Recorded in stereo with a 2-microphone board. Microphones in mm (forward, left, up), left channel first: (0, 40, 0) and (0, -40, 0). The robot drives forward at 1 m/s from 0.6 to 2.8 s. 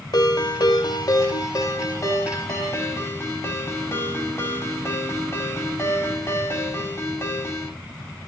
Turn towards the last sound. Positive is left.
turn(degrees=35)  # may be behind; listen again after turning